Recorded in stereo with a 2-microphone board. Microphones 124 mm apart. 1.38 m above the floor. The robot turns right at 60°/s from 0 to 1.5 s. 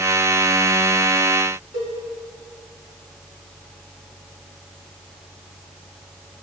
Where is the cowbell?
70° right (ahead or behind), 2.5 m.